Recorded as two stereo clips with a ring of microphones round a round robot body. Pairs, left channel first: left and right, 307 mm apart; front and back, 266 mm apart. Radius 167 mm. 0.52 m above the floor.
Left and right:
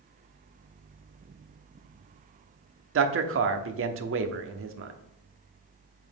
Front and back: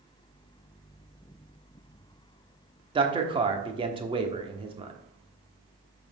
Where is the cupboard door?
I don't hear a cupboard door.